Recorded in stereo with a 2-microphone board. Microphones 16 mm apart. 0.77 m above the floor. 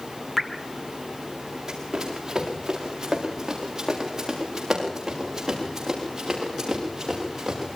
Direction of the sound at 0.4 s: Centre (ahead or behind).